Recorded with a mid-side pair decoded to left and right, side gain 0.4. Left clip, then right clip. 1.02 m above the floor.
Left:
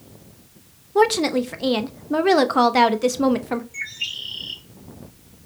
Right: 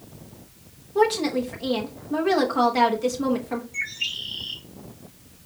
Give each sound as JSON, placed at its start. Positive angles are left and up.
{"t": 0.9, "sound": "a woman speaking", "azimuth_deg": 55, "distance_m": 0.8}
{"t": 3.7, "sound": "a bird", "azimuth_deg": 10, "distance_m": 1.5}